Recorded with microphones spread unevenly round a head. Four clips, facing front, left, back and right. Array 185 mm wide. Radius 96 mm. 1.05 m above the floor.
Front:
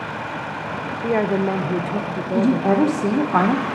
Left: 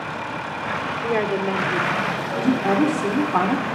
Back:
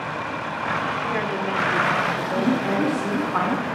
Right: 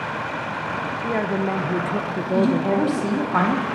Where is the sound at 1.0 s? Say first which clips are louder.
Left 1 dB, front 5 dB; 30° left, 0.7 m; by 3.3 s 90° right, 1.0 m.